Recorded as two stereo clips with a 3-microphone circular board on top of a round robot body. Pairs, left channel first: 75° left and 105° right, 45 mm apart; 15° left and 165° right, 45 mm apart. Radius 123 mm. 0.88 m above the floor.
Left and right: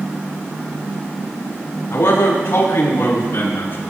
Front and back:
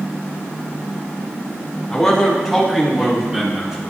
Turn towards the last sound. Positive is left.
turn(degrees=120)